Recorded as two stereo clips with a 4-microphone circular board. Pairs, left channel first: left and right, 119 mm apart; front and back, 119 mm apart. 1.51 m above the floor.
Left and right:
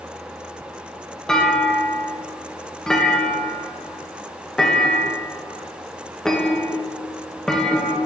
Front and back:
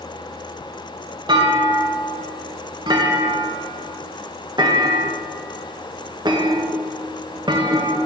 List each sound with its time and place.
1.3 s a clunk: 170° left, 0.7 m